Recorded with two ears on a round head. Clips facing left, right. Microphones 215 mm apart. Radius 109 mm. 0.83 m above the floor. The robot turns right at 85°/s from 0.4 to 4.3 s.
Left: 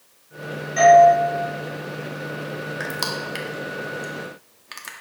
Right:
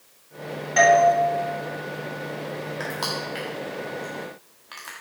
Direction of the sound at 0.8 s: 75° right (ahead or behind).